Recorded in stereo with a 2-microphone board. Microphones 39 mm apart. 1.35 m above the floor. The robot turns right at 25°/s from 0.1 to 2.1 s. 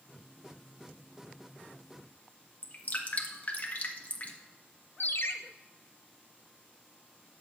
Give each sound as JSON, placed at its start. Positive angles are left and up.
{"t": 2.6, "sound": "dripping", "side_deg": 40, "distance_m": 1.4}
{"t": 5.0, "sound": "a ringtone", "side_deg": 65, "distance_m": 0.8}